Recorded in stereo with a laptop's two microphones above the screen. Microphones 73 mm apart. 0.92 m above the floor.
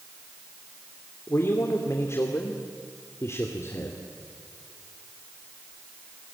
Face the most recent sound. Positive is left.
turn(degrees=45)  # may be behind; listen again after turning